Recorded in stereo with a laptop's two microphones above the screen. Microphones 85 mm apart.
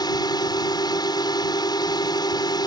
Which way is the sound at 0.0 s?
55° left (ahead or behind).